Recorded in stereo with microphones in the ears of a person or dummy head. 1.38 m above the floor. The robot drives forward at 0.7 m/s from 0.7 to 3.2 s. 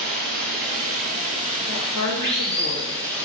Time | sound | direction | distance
0.0 | running water | 50° right (ahead or behind) | 1.7 m
1.7 | a woman speaking | 80° left | 1.3 m